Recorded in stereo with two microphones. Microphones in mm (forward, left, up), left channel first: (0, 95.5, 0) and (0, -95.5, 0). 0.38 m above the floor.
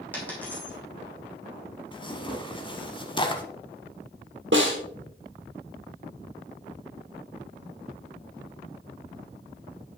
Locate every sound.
0.1 s a dropped coin: 10° left (ahead or behind), 3 m
1.9 s tearing paper: 25° left (ahead or behind), 0.8 m
4.5 s a snare drum: 85° right, 2 m